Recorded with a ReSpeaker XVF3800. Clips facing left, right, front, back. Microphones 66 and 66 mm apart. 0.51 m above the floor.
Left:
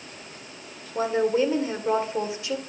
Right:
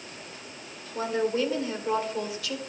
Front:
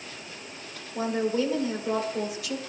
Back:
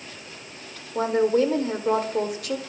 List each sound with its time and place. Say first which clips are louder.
0.9 s a woman speaking: left 4 dB, back 6 dB; 155° left, 1.8 m